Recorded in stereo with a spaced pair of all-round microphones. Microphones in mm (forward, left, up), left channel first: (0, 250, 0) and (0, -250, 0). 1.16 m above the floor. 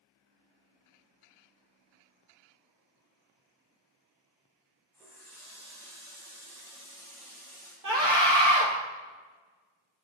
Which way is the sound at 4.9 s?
5° left (ahead or behind).